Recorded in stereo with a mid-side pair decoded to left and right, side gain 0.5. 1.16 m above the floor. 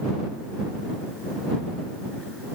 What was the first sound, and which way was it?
Only background noise.